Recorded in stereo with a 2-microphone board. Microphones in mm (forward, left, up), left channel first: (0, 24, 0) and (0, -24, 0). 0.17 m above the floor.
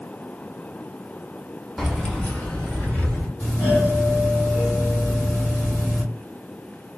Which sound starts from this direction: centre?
Keys jangling, at 1.8 s.